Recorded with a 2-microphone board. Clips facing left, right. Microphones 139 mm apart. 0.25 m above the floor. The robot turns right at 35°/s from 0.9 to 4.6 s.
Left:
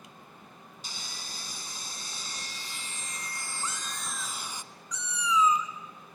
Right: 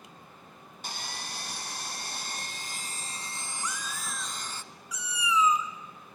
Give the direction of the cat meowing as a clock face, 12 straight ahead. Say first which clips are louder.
Right 1 dB; 7 o'clock.